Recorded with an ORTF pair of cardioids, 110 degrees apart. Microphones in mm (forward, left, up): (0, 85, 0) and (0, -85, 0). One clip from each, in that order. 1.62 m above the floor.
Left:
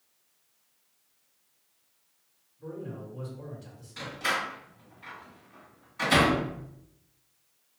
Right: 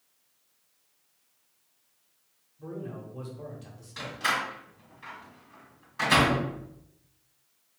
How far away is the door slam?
About 1.4 m.